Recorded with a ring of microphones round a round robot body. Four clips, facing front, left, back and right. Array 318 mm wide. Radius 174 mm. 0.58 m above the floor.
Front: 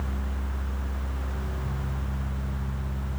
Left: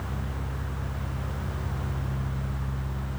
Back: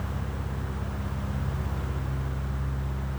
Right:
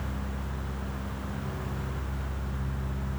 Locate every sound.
Only background noise.